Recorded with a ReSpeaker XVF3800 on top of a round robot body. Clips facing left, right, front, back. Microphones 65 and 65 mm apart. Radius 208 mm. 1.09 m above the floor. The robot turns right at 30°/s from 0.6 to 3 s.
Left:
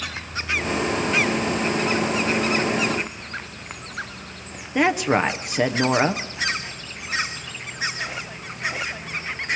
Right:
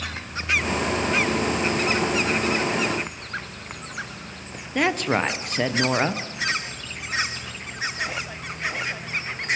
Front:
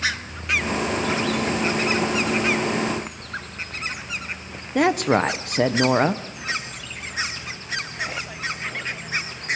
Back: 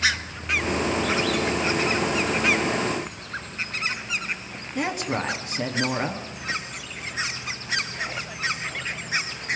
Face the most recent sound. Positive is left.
turn(degrees=10)